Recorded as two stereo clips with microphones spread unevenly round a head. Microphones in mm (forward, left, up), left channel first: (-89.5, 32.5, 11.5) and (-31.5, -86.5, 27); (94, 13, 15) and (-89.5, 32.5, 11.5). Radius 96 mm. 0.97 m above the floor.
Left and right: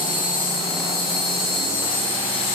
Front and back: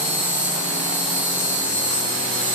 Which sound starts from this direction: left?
An insect, at 0.0 s.